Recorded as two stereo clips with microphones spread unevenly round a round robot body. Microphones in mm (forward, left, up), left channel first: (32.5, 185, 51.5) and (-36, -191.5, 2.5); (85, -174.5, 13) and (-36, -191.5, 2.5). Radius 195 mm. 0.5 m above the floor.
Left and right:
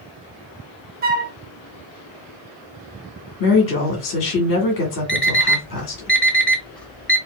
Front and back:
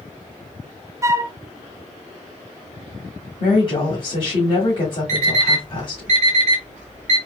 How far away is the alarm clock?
About 0.9 m.